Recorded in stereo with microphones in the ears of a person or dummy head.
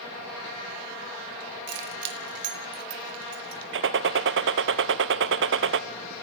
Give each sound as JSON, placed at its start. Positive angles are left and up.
{"t": 1.7, "sound": "keys jangling", "side_deg": -65, "distance_m": 3.0}
{"t": 3.7, "sound": "a gunshot", "side_deg": -60, "distance_m": 0.8}